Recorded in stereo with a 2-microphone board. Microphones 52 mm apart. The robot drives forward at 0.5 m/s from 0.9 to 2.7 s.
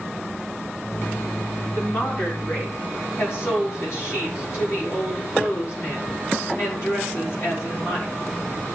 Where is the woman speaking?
55° left (ahead or behind), 5.5 m; by 8.1 s 50° left (ahead or behind), 5.5 m.